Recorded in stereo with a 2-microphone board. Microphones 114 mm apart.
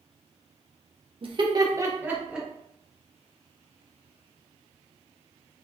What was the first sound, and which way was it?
Laughter, 50° right (ahead or behind).